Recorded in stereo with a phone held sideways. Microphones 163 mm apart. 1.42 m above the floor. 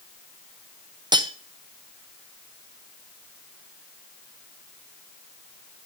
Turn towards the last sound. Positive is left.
turn(degrees=-25)  # may be behind; listen again after turning